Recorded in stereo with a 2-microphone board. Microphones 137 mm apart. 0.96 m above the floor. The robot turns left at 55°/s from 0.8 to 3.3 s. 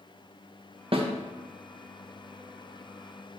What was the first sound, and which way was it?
A snare drum, 45° right (ahead or behind).